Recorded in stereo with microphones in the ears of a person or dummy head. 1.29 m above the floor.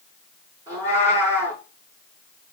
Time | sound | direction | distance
0.7 | a cat meowing | 25° right (ahead or behind) | 4.5 m